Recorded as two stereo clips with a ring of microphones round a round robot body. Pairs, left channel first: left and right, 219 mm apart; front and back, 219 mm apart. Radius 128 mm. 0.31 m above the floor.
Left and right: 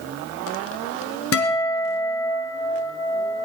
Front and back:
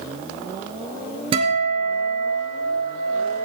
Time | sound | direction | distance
1.3 | a guitar | 110° left | 2.5 m